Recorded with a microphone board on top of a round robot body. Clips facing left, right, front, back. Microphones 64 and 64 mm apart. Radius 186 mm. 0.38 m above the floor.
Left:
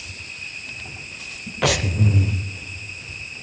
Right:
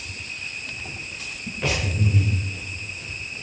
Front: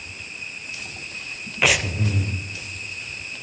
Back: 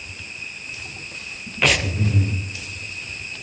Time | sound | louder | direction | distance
1.6 | breathing | left 5 dB, back 1 dB | 85° left | 0.7 m